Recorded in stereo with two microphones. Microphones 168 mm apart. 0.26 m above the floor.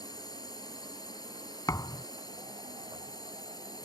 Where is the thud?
20° left (ahead or behind).